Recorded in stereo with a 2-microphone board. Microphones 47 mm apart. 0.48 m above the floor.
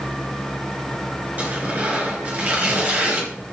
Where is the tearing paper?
40° right (ahead or behind), 3.5 m.